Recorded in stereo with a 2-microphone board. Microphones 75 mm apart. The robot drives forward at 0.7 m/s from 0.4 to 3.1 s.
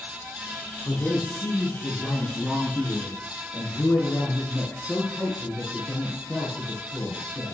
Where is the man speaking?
25° left (ahead or behind), 7.5 m; by 7.5 s 20° left (ahead or behind), 9 m.